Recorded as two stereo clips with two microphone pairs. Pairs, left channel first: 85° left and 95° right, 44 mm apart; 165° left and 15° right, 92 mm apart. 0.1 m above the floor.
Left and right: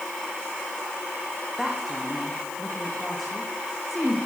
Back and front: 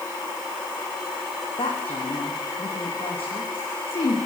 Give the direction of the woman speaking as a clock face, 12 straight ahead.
6 o'clock.